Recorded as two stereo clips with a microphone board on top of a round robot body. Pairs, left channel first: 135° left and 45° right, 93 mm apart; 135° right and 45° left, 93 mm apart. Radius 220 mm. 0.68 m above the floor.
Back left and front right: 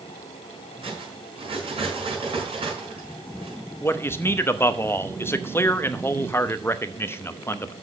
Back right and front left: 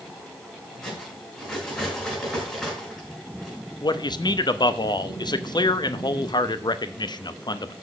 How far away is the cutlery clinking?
About 6 m.